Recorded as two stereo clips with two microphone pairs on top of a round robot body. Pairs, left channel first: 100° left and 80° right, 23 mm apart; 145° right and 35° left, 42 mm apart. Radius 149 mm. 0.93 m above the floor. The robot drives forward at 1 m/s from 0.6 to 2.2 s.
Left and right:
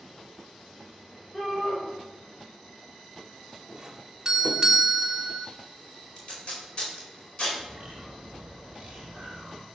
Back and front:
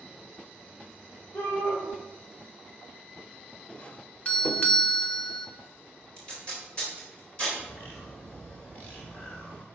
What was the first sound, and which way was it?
A shout, 175° left.